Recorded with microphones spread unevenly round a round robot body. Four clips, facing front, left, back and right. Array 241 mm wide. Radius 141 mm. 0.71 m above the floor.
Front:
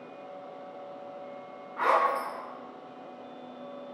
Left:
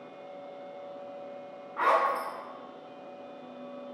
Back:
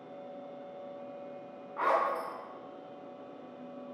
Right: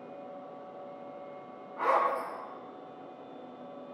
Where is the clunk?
No clunk in this recording.